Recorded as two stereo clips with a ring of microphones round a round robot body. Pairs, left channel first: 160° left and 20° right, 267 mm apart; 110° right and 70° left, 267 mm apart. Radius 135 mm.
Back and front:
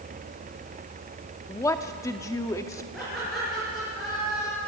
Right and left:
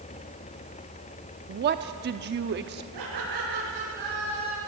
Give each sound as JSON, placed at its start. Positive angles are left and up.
{"t": 1.5, "sound": "a woman speaking", "azimuth_deg": 85, "distance_m": 0.8}
{"t": 2.9, "sound": "laughter", "azimuth_deg": 70, "distance_m": 9.0}